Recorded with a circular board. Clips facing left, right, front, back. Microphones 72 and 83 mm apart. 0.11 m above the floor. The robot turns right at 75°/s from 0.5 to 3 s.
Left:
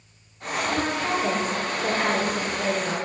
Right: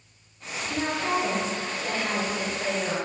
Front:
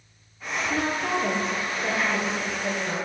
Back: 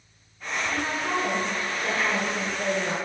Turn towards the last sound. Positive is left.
turn(degrees=155)